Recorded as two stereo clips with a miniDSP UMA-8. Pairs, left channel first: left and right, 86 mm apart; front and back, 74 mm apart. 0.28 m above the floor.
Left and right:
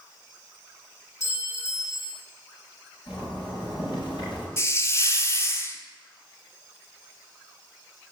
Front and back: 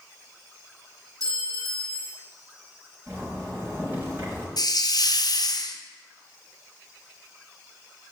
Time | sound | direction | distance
1.2 | a clink | 145° left | 5.5 m
3.1 | a zipper | 120° left | 5.5 m
4.6 | a hiss | 30° left | 1.1 m